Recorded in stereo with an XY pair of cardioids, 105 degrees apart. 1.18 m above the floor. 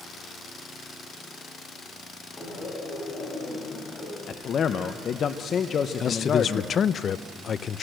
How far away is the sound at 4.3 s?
About 0.9 m.